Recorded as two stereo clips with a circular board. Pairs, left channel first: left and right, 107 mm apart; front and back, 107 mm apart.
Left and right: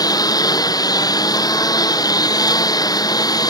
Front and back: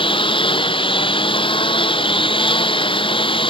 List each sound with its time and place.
0.0 s a lawn mower: 35° left